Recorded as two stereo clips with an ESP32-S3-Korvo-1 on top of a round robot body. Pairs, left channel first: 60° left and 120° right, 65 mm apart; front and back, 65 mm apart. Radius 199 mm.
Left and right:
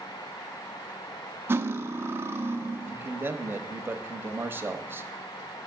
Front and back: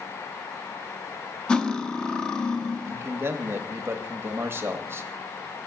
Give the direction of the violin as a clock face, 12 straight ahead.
No violin in this recording.